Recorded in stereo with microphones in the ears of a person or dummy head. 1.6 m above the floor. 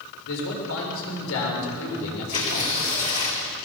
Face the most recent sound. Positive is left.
turn(degrees=40)  # may be behind; listen again after turning